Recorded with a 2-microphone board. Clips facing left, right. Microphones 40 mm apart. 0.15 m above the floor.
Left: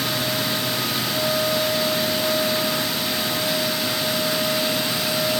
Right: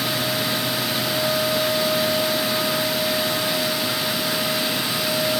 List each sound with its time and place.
Only background noise.